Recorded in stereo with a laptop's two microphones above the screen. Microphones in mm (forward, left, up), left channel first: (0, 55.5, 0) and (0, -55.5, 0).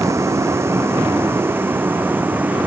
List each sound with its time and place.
0.0 s a vehicle: 25° right (ahead or behind); by 2.7 s 15° right (ahead or behind)